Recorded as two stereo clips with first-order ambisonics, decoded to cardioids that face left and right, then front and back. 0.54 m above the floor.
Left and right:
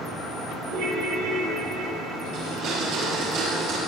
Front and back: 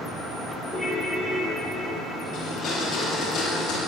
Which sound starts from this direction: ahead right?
A blender, at 2.3 s.